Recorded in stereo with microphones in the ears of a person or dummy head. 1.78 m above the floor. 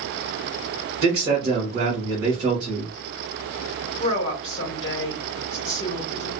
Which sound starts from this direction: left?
A woman speaking, at 4.0 s.